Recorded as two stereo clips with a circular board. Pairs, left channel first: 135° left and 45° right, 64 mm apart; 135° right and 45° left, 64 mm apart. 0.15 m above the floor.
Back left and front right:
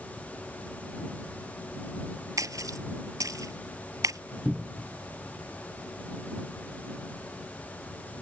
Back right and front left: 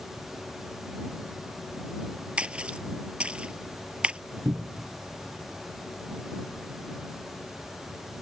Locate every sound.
2.4 s a splash: 25° right
4.5 s a cupboard door: 45° left